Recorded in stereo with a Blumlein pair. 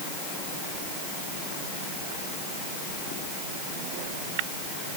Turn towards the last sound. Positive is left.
No sound to turn to.